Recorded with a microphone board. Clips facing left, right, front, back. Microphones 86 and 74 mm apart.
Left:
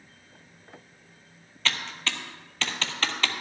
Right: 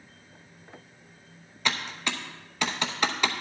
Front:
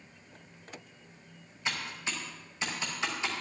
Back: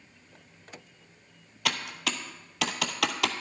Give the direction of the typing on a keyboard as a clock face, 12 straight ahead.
6 o'clock.